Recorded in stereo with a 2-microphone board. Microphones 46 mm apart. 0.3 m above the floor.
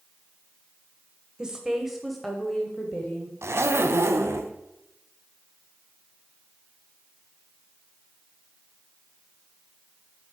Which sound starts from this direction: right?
A zipper, at 3.4 s.